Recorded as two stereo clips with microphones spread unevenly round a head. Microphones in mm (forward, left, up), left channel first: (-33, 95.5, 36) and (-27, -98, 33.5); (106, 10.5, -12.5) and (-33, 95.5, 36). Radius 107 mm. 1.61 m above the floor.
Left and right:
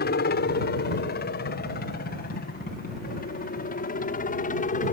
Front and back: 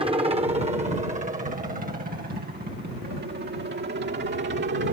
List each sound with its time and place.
0.0 s a helicopter: 90° left; by 4.9 s 135° left